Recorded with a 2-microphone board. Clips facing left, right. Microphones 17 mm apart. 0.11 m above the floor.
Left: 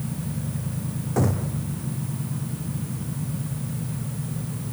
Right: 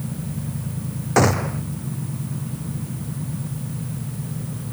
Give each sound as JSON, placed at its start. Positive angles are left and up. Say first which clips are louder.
{"t": 1.2, "sound": "a gunshot", "louder": "right 7 dB", "side_deg": -70}